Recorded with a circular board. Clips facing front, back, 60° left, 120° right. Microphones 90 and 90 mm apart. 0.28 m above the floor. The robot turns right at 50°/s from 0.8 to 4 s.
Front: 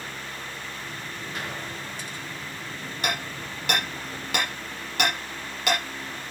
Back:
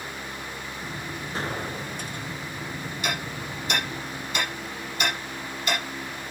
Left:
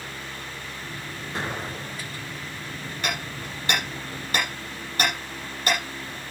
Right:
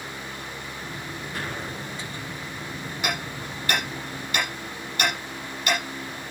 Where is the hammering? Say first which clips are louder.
Front 1 dB, right 1 dB; 40° right, 10 m; by 5.8 s 10° left, 10 m.